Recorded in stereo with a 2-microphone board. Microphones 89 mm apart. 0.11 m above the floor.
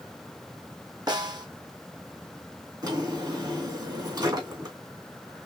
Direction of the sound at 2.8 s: 45° right (ahead or behind).